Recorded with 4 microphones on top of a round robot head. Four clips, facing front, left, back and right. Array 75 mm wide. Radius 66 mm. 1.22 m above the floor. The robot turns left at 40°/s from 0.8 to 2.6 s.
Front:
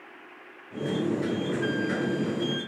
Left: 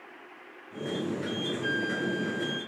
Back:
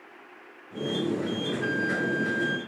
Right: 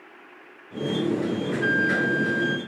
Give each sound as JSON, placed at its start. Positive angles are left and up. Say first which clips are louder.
{"t": 1.6, "sound": "a flute", "louder": "right 9 dB, back 3 dB", "azimuth_deg": -80, "distance_m": 1.8}